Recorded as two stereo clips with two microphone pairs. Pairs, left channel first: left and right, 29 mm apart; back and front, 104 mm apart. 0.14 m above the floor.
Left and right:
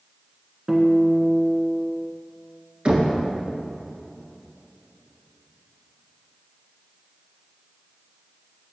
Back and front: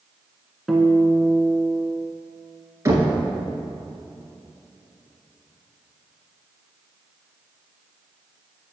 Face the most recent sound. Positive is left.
turn(degrees=-55)